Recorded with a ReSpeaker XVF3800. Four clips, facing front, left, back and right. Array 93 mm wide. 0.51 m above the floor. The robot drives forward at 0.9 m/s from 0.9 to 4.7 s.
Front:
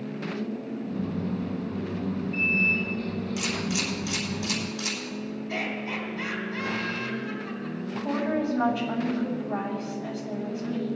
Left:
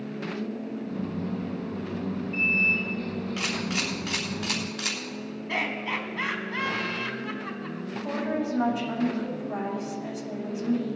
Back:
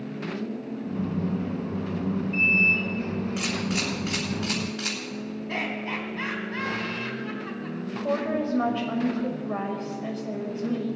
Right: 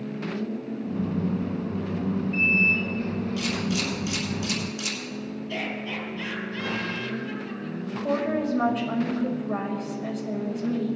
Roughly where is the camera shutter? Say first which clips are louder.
Right 2 dB, back 1 dB; behind left.